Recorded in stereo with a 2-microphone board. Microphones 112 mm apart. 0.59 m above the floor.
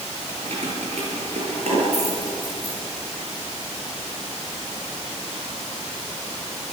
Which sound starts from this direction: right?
Keys jangling, at 0.3 s.